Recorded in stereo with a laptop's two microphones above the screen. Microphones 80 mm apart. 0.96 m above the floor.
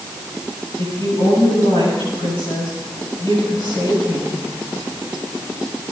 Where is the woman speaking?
55° left (ahead or behind), 8 m.